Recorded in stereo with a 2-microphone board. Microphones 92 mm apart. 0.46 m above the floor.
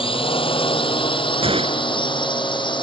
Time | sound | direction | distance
0.0 | a drone | 75° left (ahead or behind) | ?
1.4 | a gunshot | 80° right | ?